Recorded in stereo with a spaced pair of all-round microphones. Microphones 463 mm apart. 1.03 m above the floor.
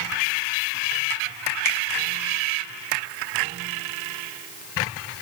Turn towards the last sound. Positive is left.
turn(degrees=-75)  # may be behind; listen again after turning